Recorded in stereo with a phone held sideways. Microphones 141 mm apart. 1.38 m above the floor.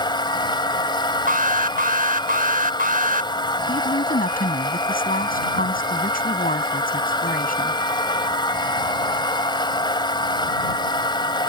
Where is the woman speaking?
90° left.